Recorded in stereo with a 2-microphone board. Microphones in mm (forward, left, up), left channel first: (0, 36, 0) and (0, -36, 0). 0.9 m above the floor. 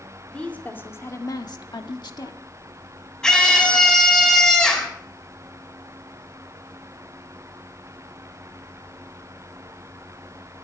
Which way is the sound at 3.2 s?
10° left (ahead or behind).